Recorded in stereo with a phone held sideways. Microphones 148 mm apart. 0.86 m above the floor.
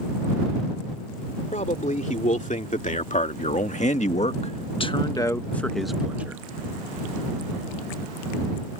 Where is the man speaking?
55° left (ahead or behind); by 6.4 s 15° right (ahead or behind).